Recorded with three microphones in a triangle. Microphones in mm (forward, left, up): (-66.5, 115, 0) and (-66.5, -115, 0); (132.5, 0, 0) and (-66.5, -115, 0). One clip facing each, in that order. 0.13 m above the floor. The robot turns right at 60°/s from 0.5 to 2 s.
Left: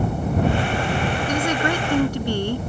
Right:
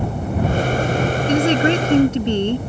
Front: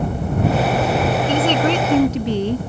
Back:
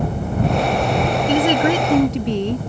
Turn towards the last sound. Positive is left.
turn(degrees=-60)